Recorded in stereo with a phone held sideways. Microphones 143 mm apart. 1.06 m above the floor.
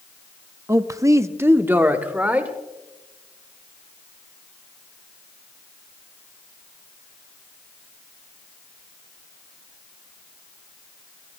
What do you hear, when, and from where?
0.7 s a man speaking: 20° right (ahead or behind), 0.5 m; by 2.5 s 10° right (ahead or behind), 2.0 m